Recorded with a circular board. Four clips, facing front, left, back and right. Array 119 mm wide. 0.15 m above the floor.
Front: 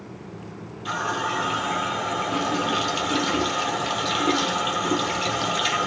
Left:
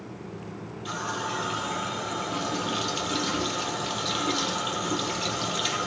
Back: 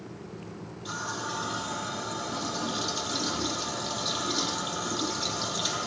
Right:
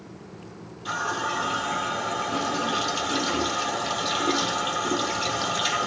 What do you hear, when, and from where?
0.8 s a running tap: straight ahead, 2.5 m